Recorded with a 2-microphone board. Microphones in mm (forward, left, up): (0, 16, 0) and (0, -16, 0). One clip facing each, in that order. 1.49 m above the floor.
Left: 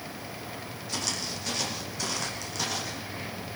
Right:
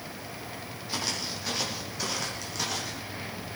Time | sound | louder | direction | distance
0.9 | footsteps | right 1 dB | 20° right (ahead or behind) | 3 m